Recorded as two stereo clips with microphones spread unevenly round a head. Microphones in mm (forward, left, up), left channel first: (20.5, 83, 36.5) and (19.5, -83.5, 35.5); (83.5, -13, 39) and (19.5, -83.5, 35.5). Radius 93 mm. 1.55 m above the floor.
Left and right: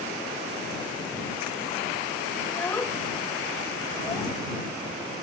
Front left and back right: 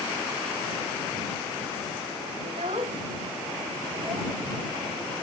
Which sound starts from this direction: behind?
A child speaking, at 2.5 s.